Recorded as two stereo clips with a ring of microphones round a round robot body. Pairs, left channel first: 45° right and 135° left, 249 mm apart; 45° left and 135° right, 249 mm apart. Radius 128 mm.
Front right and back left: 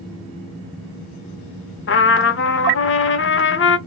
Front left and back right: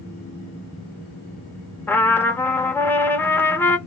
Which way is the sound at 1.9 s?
35° right.